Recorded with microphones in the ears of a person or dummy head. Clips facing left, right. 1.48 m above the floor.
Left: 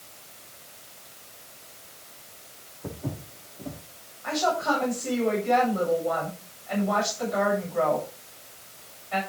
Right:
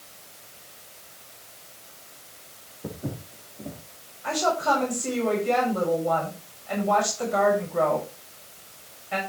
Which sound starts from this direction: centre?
Footsteps, at 2.8 s.